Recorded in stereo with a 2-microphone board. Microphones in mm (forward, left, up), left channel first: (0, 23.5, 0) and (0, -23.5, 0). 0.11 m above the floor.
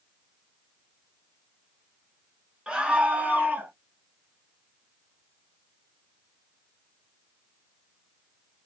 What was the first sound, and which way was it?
A scream, 20° right (ahead or behind).